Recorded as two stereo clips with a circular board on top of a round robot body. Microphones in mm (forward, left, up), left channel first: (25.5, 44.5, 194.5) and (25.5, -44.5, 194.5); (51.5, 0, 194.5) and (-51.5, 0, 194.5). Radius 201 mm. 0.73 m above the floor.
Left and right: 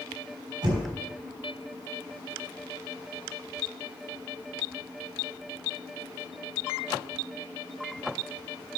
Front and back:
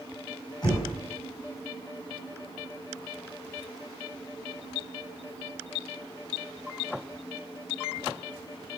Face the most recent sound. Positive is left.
turn(degrees=-50)